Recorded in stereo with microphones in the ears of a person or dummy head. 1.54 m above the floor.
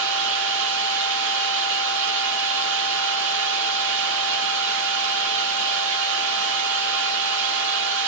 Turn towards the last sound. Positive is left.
turn(degrees=-55)  # may be behind; listen again after turning